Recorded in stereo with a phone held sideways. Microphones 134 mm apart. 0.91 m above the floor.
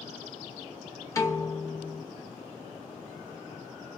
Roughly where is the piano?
Left.